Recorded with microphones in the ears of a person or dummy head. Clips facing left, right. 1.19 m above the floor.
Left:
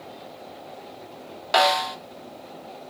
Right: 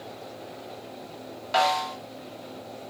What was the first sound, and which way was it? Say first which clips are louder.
A snare drum: left 3 dB; 60° left (ahead or behind).